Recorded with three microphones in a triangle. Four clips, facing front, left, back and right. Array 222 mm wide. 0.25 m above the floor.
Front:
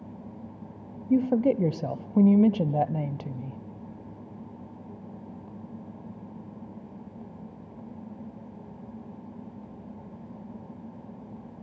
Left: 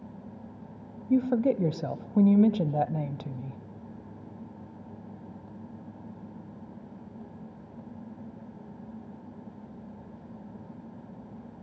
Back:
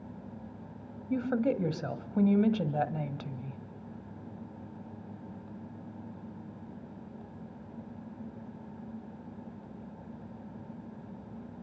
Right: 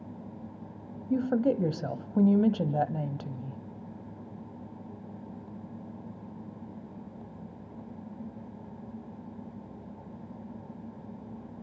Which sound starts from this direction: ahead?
A woman speaking, at 1.1 s.